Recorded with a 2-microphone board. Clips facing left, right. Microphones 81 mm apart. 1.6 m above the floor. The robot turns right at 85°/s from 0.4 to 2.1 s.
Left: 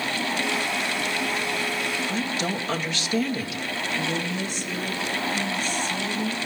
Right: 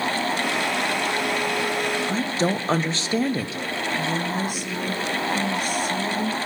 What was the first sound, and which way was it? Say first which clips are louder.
A woman speaking: right 4 dB; 35° right (ahead or behind).